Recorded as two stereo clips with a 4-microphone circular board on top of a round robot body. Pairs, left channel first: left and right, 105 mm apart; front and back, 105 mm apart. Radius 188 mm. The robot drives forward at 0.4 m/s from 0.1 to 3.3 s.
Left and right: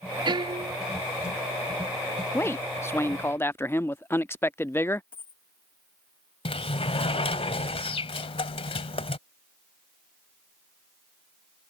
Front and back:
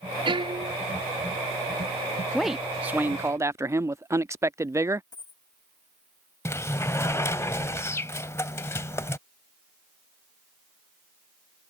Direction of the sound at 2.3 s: 90° left.